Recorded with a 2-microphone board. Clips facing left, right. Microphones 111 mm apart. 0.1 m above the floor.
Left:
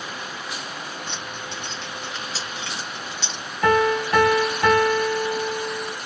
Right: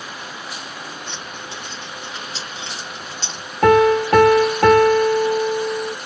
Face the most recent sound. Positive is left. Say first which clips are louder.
# right 6 dB
turn(degrees=-60)  # may be behind; listen again after turning